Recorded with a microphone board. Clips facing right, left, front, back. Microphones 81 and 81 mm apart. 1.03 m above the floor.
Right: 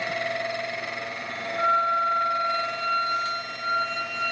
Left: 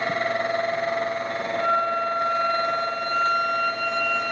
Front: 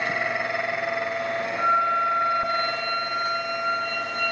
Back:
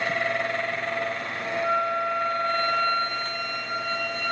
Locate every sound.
1.6 s a flute: 30° right, 2.5 m